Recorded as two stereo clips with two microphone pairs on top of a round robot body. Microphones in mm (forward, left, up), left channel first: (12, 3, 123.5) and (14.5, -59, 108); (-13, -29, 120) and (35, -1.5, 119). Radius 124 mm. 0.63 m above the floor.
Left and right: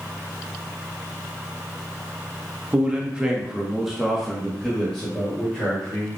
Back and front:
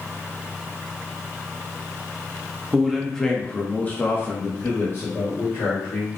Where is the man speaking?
55° right, 1.2 m; by 6.2 s 175° left, 2 m.